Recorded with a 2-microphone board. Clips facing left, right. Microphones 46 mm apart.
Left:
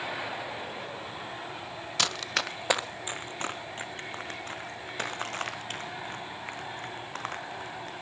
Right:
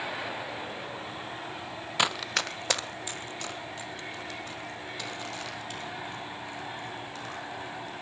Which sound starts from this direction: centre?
Running footsteps, at 2.0 s.